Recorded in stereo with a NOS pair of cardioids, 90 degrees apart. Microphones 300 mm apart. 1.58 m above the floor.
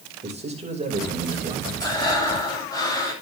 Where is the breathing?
10° left, 9 m.